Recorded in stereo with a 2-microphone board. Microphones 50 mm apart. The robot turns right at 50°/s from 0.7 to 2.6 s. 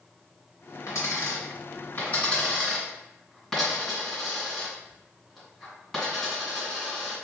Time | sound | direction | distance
0.9 | a dropped coin | 85° left | 1.9 m